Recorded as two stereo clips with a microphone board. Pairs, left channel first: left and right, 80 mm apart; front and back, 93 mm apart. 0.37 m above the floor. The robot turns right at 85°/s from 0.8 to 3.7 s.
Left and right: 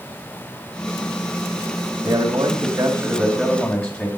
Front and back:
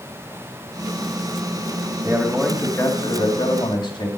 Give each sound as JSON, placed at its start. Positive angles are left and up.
{"t": 2.0, "sound": "a man speaking", "azimuth_deg": -115, "distance_m": 2.5}